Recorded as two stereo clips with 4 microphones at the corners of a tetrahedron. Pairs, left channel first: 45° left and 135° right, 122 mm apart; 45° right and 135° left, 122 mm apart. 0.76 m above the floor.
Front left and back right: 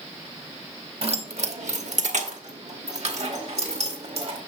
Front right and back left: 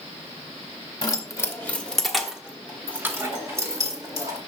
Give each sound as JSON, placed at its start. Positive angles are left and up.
{"t": 1.0, "sound": "keys jangling", "azimuth_deg": -100, "distance_m": 0.9}